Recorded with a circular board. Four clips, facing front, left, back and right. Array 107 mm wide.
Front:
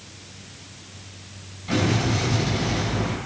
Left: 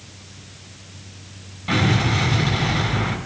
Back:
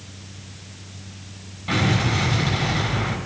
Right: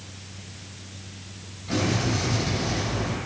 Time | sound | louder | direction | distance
1.7 | an explosion | left 4 dB, even | 125° left | 3 m